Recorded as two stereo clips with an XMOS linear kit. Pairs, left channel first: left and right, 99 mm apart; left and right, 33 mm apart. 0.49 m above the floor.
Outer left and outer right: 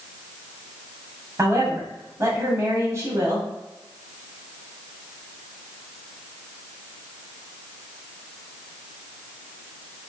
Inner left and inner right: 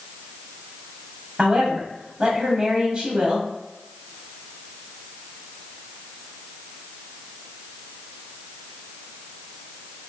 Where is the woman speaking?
25° right (ahead or behind), 1.3 m.